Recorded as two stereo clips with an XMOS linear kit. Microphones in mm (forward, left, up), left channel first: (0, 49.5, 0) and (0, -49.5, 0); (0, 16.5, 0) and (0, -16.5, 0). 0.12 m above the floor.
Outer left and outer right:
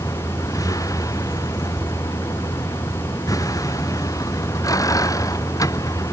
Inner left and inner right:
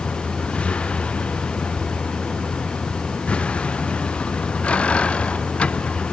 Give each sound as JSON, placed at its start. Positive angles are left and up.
{"t": 0.0, "sound": "a vehicle", "side_deg": 35}